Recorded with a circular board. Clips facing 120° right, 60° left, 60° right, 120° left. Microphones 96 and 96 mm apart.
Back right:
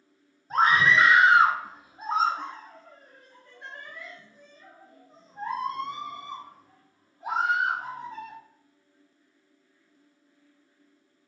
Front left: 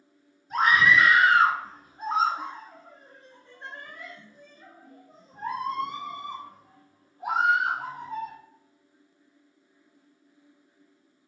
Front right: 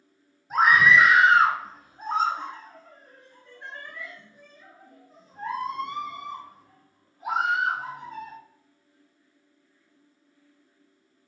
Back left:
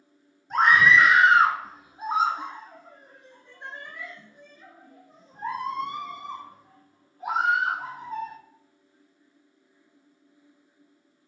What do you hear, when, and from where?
0.5 s a scream: 140° right, 1.5 m; by 8.4 s 55° left, 3.5 m